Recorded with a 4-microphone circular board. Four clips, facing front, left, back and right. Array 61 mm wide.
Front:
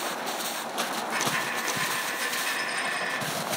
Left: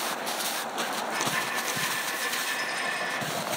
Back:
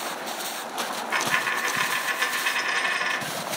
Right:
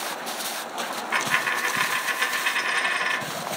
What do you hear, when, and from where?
0.9 s a dropped coin: 125° right, 0.8 m